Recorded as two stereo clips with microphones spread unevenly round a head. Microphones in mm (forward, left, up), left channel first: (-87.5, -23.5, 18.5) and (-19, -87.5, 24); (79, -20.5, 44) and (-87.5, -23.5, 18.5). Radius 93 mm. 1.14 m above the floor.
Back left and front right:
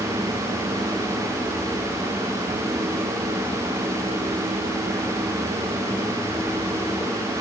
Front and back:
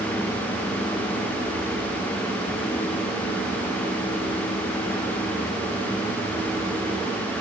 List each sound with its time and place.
Only background noise.